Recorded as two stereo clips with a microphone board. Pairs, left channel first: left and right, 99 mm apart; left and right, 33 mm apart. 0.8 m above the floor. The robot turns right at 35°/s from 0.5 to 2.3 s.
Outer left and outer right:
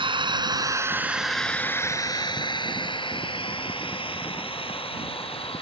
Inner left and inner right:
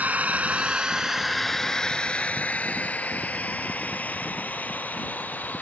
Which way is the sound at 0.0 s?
55° right (ahead or behind).